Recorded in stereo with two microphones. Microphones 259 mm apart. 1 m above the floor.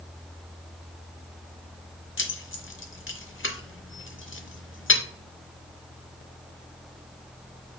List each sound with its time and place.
2.2 s keys jangling: 55° left (ahead or behind), 0.6 m